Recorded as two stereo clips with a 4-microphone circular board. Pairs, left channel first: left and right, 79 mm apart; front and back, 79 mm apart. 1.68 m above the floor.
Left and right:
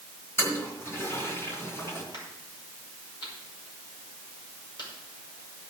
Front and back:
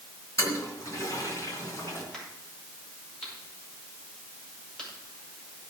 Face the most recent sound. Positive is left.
turn(degrees=80)